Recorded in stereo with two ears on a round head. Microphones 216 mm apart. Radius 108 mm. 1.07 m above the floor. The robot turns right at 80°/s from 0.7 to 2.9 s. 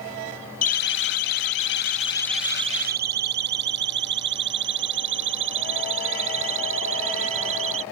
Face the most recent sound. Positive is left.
turn(degrees=-65)  # may be behind; listen again after turning